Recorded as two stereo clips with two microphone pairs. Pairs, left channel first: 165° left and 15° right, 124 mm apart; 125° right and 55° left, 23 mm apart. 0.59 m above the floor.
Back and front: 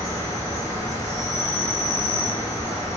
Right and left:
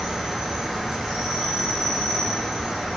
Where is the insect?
110° left, 1.2 m.